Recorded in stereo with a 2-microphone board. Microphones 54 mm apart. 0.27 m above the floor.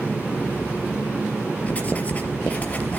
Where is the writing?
30° left (ahead or behind), 2 m.